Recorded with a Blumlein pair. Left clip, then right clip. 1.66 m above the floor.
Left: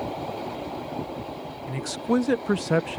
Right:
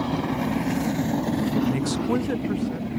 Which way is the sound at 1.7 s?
10° right.